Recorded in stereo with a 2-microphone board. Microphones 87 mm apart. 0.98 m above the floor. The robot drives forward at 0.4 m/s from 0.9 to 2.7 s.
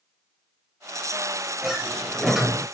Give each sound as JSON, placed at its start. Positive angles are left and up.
{"t": 1.6, "sound": "a sliding door", "side_deg": -5, "distance_m": 0.7}